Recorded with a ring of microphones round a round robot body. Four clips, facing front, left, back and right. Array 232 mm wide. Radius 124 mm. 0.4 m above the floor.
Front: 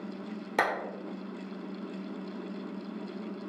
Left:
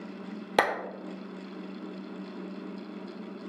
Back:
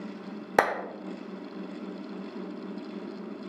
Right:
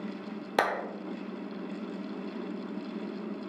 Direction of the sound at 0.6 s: 155° left.